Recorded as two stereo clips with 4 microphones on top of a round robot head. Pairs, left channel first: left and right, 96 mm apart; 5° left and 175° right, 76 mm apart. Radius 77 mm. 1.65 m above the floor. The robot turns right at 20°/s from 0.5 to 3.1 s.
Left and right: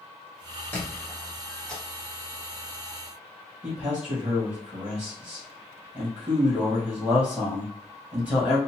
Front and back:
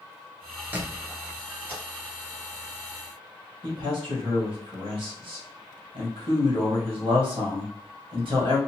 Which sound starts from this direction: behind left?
A squeak, at 0.7 s.